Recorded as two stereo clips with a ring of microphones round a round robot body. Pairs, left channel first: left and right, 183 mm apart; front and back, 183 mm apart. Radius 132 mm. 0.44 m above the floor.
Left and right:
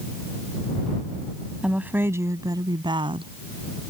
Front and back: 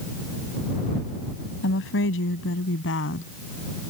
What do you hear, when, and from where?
1.6 s a woman speaking: 5° right; by 3.3 s 30° right